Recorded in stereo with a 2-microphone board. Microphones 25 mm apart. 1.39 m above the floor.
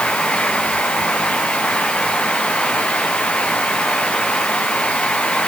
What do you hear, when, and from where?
Only background noise.